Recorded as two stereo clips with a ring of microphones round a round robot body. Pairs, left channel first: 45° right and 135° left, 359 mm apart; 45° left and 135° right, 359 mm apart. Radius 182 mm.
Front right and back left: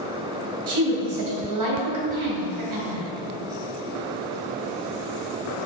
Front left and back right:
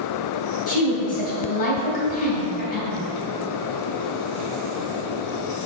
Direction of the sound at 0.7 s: 110° left.